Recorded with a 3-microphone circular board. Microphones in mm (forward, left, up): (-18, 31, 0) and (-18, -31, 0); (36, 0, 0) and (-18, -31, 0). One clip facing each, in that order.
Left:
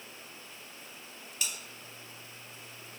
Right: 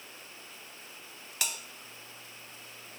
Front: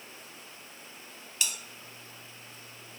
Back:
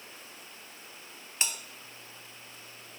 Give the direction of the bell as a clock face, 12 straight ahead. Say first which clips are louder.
Right 2 dB, back 1 dB; 3 o'clock.